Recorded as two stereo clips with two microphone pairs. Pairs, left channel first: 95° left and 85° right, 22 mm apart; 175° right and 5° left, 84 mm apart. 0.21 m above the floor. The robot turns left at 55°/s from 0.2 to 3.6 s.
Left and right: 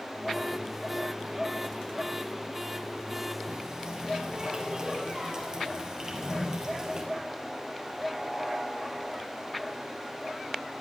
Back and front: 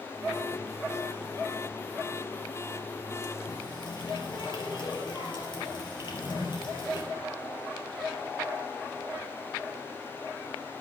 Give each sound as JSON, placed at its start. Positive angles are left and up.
{"t": 3.5, "sound": "a running tap", "azimuth_deg": -145, "distance_m": 3.5}
{"t": 6.0, "sound": "a drawer", "azimuth_deg": 175, "distance_m": 6.0}